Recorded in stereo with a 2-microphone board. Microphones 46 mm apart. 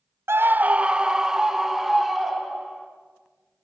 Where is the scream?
60° right (ahead or behind), 0.7 m; by 2.9 s centre (ahead or behind), 4.5 m.